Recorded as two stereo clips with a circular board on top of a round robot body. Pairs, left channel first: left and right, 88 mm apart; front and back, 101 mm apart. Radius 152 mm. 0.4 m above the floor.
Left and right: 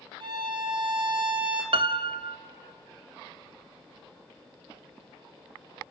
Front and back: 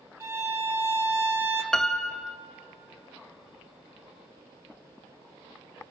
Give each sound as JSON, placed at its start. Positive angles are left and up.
{"t": 0.2, "sound": "a violin", "azimuth_deg": -115, "distance_m": 2.0}
{"t": 1.7, "sound": "a piano", "azimuth_deg": -85, "distance_m": 0.6}